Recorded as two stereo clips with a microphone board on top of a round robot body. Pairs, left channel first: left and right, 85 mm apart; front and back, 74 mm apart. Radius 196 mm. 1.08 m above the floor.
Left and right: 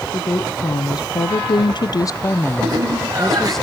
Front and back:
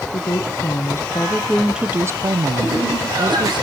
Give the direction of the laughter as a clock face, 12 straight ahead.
5 o'clock.